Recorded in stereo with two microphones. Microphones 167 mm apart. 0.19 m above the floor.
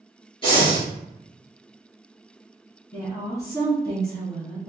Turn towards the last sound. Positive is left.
turn(degrees=20)  # may be behind; listen again after turning